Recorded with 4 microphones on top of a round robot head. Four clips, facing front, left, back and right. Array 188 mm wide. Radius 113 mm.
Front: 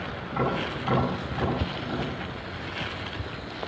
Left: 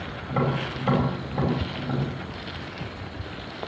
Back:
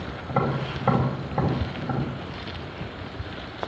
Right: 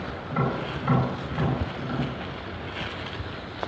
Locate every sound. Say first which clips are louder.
0.3 s tapping: left 2 dB, back 2 dB; 155° left, 5 m